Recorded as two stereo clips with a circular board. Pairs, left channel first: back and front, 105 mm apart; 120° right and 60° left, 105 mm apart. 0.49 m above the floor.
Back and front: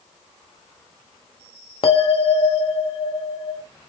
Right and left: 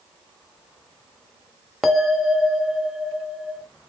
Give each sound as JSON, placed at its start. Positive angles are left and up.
{"t": 1.8, "sound": "a bell", "azimuth_deg": 150, "distance_m": 0.8}